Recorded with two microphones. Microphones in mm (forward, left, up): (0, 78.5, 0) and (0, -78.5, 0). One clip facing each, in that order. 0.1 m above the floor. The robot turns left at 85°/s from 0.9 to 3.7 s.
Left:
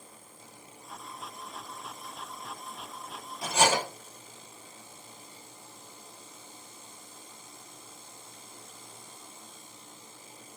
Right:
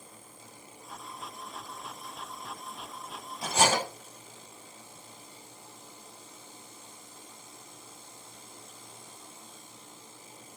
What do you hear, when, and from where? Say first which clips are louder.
3.4 s cutlery clinking: even; 25° right (ahead or behind), 1.5 m; by 3.8 s 40° right (ahead or behind), 1.5 m